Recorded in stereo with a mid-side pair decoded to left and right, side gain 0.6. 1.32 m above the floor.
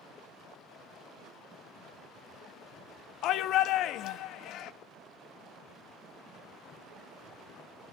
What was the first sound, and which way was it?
A shout, 60° left.